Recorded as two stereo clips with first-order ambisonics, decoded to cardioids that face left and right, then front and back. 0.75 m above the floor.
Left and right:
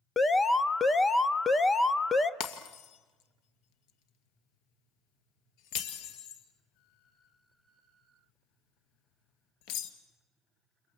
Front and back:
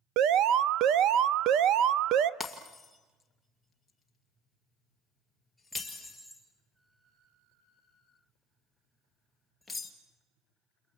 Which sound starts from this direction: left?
Breaking glass, at 2.4 s.